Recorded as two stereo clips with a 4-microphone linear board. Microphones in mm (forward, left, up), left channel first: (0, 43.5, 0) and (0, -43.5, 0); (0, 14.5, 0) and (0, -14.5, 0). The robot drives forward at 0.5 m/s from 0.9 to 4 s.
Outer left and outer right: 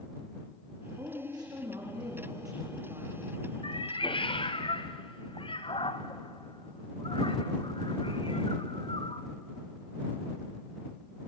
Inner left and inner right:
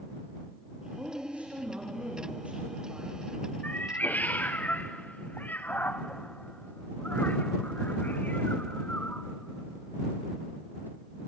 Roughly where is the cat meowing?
Left.